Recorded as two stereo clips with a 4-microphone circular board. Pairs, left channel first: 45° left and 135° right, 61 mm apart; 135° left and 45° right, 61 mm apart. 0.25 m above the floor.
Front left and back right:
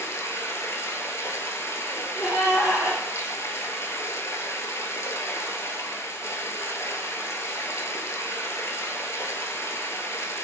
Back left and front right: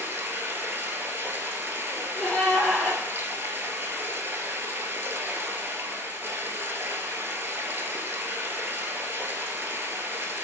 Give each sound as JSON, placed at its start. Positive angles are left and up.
{"t": 0.0, "sound": "running water", "azimuth_deg": 10, "distance_m": 0.7}
{"t": 1.9, "sound": "a gasp", "azimuth_deg": 50, "distance_m": 2.0}